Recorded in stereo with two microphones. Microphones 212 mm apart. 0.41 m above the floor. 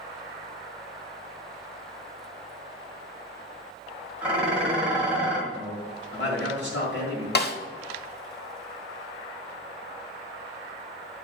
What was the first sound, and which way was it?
Dishes clattering, 5° right (ahead or behind).